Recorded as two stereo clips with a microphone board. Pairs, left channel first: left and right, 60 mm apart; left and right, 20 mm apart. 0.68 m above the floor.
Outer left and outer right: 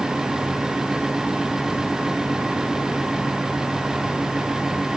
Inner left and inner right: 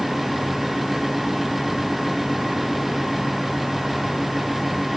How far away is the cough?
No cough in this recording.